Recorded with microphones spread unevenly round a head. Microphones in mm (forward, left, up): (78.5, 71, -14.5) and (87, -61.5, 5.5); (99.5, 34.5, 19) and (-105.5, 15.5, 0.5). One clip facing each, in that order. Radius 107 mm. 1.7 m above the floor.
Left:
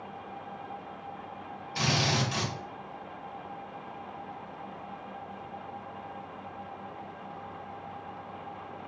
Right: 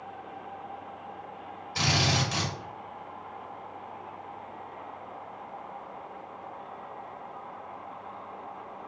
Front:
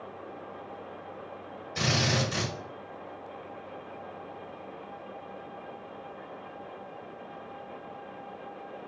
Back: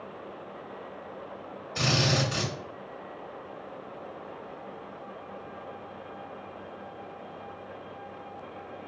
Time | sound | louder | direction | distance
1.8 | a drill | right 1 dB, back 2 dB | 85° right | 1.9 m